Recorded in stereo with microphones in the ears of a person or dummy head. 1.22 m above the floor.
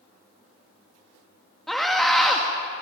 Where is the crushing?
I don't hear crushing.